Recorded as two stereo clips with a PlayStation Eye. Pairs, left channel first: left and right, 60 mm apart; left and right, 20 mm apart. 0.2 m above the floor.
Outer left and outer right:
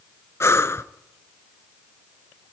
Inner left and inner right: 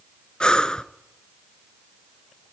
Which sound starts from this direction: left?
Breathing, at 0.4 s.